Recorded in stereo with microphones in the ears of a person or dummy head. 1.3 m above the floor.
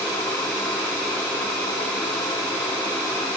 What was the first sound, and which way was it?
Only background noise.